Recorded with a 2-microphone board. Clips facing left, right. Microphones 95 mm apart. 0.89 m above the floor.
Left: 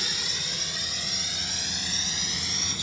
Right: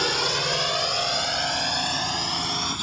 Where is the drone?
70° right (ahead or behind); by 2.8 s 55° right (ahead or behind).